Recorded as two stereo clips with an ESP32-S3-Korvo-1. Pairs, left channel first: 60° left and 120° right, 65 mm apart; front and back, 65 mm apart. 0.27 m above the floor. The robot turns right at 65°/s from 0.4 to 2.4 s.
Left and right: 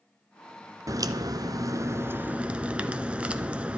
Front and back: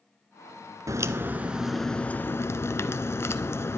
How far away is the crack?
About 0.8 m.